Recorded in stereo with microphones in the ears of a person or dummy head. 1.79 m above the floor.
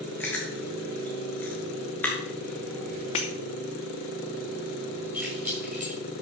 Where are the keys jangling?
5° right (ahead or behind), 6.5 m.